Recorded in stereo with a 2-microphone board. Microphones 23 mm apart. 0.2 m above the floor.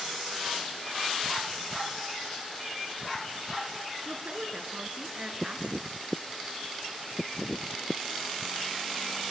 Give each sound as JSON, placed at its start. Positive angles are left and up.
{"t": 4.0, "sound": "a woman speaking", "side_deg": -45, "distance_m": 3.0}